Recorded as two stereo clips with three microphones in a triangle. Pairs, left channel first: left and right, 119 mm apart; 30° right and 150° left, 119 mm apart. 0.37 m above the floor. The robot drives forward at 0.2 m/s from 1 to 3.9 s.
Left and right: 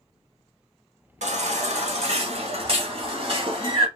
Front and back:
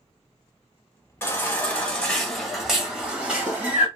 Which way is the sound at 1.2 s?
100° right.